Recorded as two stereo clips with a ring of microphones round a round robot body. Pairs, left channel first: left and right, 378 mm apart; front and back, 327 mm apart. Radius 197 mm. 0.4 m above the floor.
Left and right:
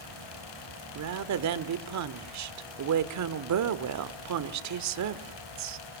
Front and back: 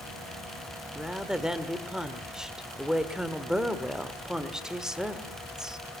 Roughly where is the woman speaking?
Right.